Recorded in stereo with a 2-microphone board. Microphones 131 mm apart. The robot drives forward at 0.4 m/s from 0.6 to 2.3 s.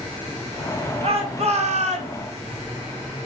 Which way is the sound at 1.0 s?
55° right (ahead or behind).